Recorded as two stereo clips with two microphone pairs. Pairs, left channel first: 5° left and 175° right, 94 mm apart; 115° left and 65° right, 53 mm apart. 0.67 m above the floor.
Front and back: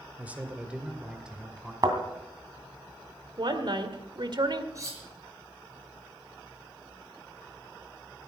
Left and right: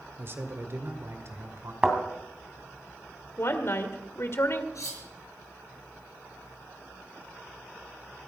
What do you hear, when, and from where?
0.2 s a man speaking: 105° right, 1.8 m; by 1.7 s 90° right, 2.5 m
1.8 s a thud: 135° right, 2.5 m
3.4 s a woman speaking: 155° left, 1.8 m
4.8 s cutlery clinking: 130° left, 5.5 m